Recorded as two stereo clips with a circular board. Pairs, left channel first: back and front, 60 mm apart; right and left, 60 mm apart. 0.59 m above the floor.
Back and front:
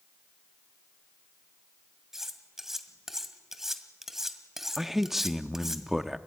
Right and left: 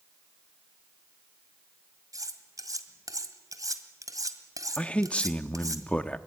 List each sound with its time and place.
2.1 s cutlery clinking: 85° left, 1.8 m
4.8 s a man speaking: 75° right, 0.7 m